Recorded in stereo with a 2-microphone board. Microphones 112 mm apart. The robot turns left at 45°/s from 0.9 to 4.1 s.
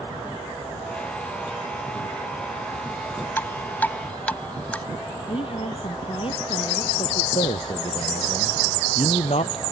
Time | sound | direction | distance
3.4 | dripping | 20° left (ahead or behind) | ?
5.3 | a woman speaking | 55° left (ahead or behind) | ?
7.3 | a man speaking | 65° left (ahead or behind) | ?